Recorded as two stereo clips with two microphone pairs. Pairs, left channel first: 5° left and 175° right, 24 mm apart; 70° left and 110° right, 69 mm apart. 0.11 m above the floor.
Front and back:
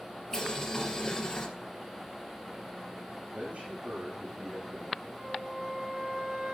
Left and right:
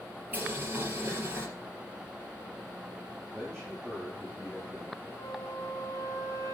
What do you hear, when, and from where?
0.3 s boiling: 55° right, 3 m
3.3 s a man speaking: 150° left, 7.5 m
5.2 s a flute: 100° left, 4 m